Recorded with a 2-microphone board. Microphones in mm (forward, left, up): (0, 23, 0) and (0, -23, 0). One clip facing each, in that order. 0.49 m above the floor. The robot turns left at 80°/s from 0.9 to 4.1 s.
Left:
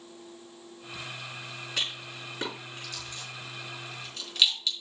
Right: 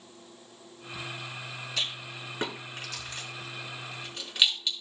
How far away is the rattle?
About 4 m.